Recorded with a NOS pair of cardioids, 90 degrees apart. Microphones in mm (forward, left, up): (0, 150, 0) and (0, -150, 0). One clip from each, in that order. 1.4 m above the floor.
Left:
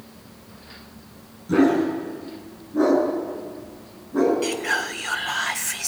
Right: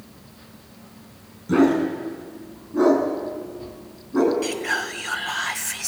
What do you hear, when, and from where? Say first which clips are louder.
1.5 s a dog barking: even; 25° right, 6 m
4.4 s whispering: left 1 dB; 5° left, 1.4 m